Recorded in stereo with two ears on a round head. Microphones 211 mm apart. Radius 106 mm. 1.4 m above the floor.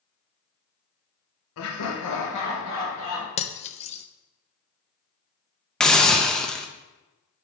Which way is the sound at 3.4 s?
30° left (ahead or behind).